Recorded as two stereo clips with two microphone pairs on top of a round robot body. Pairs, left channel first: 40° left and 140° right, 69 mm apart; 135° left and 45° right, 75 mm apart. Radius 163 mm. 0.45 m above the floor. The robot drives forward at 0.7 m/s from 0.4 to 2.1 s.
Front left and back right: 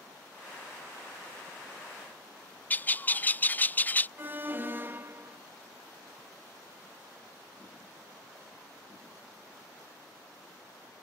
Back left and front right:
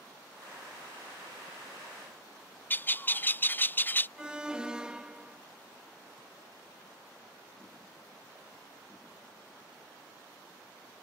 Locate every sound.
2.7 s a bird: 95° left
4.2 s an alarm: 120° right